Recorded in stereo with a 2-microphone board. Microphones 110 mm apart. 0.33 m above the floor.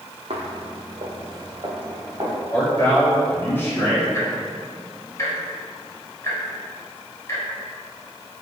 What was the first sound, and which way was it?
Footsteps, 70° right (ahead or behind).